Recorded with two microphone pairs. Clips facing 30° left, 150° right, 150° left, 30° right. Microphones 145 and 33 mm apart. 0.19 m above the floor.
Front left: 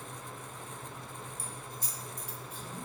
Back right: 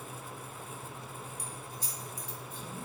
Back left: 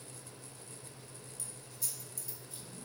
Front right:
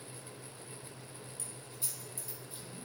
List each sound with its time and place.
1.4 s keys jangling: 20° right, 1.3 m; by 2.6 s 40° left, 2.5 m